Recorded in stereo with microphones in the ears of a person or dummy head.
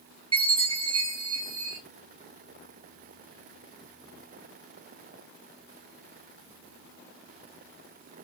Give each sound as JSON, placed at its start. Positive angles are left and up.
{"t": 0.3, "sound": "a chime", "side_deg": -25, "distance_m": 0.9}